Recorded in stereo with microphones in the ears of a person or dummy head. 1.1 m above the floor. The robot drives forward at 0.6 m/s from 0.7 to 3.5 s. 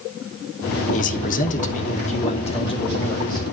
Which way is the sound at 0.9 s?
40° left (ahead or behind).